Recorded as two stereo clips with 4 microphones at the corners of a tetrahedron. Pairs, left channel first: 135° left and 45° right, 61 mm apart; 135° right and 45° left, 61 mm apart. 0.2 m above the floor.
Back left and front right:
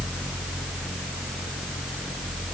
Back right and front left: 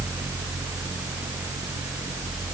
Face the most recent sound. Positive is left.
No sound to turn to.